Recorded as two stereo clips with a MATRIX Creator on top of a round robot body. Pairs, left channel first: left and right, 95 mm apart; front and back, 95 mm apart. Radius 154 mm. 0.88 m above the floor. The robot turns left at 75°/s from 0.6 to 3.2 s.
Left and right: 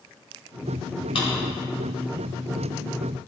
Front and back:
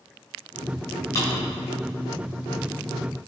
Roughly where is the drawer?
Ahead left.